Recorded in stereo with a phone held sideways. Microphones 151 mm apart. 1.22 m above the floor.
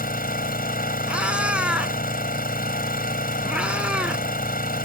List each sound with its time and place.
0.0 s an engine running: 75° left (ahead or behind)
1.1 s a cat meowing: 5° right (ahead or behind)